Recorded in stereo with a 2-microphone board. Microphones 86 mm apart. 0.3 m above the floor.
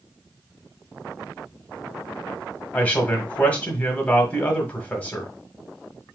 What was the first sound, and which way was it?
A man speaking, 15° left (ahead or behind).